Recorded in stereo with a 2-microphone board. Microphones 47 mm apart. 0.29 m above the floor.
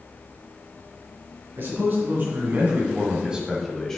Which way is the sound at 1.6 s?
50° right (ahead or behind).